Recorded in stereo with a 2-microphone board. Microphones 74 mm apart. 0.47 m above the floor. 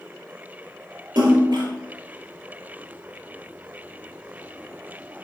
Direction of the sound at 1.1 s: 85° right.